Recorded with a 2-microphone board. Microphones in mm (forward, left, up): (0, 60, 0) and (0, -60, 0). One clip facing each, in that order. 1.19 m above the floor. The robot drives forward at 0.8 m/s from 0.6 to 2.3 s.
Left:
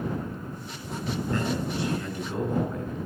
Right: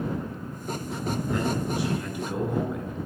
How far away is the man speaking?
About 7.5 m.